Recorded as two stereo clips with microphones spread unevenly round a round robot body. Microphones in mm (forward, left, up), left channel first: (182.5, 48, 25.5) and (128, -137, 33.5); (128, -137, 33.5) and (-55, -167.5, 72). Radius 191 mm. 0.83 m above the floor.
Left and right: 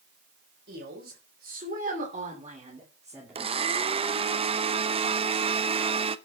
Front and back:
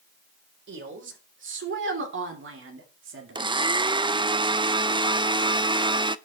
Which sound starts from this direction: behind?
A woman speaking, at 0.7 s.